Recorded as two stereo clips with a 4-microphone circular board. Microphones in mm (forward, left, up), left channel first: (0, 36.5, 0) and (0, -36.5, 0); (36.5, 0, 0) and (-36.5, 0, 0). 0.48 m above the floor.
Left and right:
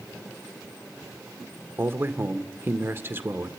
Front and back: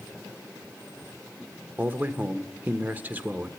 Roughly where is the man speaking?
Behind right.